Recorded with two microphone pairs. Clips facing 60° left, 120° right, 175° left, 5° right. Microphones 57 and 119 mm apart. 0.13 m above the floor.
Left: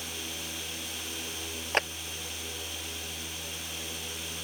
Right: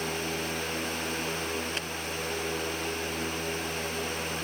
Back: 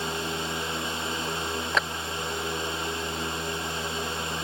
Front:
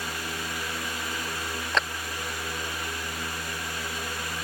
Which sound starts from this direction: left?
A clap, at 1.7 s.